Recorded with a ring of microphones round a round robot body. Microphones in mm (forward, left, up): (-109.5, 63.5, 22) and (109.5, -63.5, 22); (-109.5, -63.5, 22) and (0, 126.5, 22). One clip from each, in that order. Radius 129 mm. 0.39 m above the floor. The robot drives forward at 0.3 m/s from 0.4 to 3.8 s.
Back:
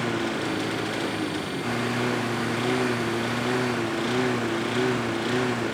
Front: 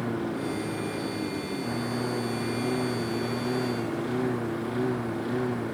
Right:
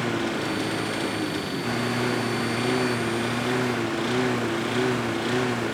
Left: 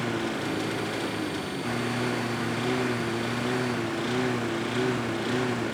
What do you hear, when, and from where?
0.0 s a lawn mower: 165° left